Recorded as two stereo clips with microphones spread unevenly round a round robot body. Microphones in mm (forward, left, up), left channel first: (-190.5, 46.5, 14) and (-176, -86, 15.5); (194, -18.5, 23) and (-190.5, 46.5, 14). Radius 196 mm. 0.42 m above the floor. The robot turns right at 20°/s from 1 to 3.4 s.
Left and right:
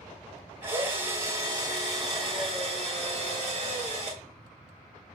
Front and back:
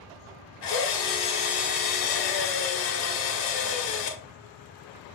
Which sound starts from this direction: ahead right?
A drill, at 0.6 s.